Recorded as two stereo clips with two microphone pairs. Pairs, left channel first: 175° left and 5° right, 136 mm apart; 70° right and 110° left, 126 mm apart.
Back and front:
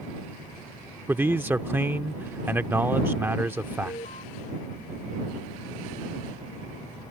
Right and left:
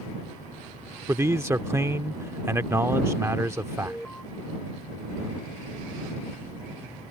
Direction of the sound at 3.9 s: 150° right.